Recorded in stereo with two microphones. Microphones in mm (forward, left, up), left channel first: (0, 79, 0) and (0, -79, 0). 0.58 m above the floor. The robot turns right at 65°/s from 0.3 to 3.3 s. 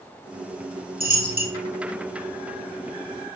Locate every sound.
1.0 s a dropped coin: 70° right (ahead or behind), 1.5 m; by 1.5 s 55° right (ahead or behind), 1.5 m